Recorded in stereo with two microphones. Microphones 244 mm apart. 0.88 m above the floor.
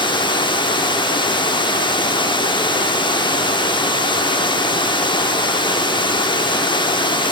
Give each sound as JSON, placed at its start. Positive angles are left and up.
{"t": 0.0, "sound": "running water", "side_deg": 20, "distance_m": 1.1}